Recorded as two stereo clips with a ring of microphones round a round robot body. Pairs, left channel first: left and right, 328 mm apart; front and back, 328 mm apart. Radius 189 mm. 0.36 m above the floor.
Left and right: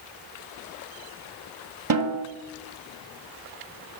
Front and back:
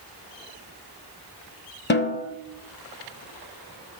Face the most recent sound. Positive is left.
turn(degrees=-60)